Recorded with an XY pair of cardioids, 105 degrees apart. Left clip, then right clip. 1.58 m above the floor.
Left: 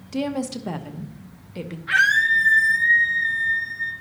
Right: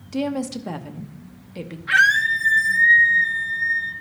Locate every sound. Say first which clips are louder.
0.1 s a woman speaking: right 1 dB; straight ahead, 0.9 m
1.9 s a scream: right 1 dB; 10° right, 0.8 m